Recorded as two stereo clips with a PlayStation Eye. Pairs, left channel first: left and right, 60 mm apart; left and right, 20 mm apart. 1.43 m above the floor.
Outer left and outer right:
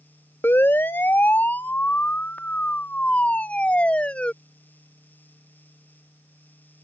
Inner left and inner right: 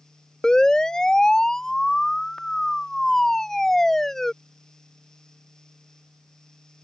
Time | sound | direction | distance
0.4 | a siren | 40° left (ahead or behind) | ?